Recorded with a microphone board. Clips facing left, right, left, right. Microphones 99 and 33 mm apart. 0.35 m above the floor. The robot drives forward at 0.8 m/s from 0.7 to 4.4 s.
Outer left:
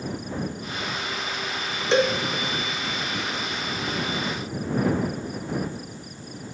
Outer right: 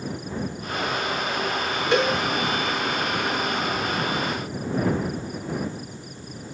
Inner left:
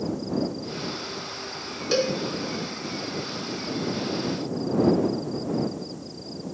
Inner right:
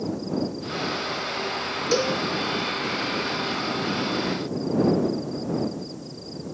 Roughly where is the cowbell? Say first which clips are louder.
Outer left 1 dB, even; left.